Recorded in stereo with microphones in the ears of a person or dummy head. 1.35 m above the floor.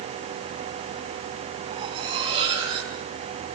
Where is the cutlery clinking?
25° right (ahead or behind), 7.5 m.